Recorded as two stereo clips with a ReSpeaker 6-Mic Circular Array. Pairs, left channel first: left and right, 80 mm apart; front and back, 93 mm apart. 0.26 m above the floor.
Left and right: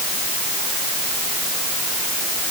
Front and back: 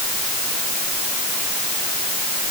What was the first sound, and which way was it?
Only background noise.